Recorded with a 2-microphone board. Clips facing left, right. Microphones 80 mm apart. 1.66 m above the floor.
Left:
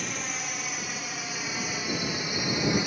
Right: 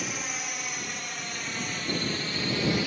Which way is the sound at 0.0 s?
Centre (ahead or behind).